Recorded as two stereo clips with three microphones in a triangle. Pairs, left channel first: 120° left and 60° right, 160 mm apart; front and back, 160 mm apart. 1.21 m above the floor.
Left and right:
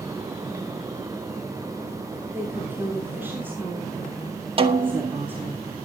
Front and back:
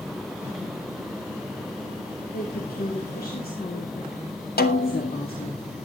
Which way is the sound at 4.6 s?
5° right.